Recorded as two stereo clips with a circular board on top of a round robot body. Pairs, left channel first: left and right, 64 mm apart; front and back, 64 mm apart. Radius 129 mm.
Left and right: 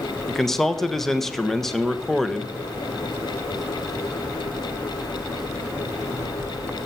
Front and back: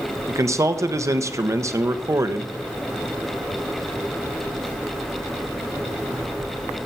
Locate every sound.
0.3 s a man speaking: 175° left, 1.2 m